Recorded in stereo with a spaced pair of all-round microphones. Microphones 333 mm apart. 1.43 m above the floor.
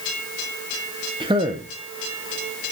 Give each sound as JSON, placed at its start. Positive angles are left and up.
{"t": 1.2, "sound": "a man speaking", "side_deg": -15, "distance_m": 1.1}